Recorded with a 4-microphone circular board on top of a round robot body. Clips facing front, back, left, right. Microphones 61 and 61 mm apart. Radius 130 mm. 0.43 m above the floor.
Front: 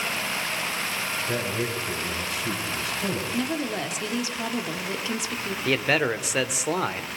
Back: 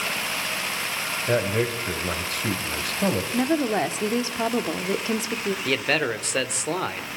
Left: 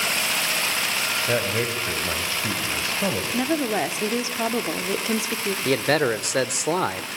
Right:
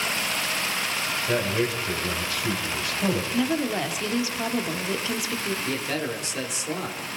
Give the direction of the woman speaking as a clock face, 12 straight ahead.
7 o'clock.